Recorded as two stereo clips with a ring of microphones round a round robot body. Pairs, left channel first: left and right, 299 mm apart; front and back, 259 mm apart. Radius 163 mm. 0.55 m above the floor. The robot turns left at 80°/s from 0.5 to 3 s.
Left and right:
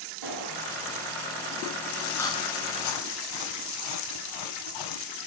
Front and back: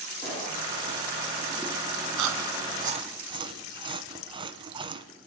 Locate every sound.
0.2 s a gunshot: 110° right, 6 m; by 0.6 s 115° right, 6 m
2.2 s chewing: 175° left, 1.1 m; by 5.1 s 110° left, 1.1 m